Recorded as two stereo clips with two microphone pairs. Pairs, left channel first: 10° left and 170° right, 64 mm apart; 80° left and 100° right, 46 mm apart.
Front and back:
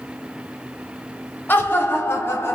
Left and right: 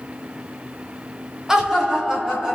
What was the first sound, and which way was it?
Laughter, 25° right.